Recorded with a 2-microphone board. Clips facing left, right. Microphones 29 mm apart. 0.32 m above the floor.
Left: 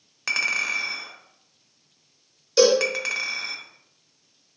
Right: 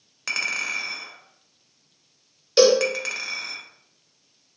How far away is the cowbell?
About 0.7 m.